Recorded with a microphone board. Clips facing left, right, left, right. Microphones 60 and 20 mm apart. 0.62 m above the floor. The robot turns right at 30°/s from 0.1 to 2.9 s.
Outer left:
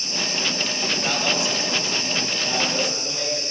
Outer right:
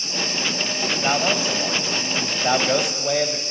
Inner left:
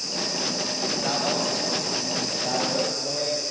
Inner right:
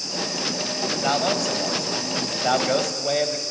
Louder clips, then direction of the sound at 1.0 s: Outer right 4 dB, inner right 4 dB; 150° right.